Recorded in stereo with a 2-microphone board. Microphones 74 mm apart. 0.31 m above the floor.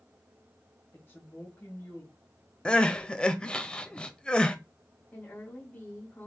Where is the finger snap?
I don't hear a finger snap.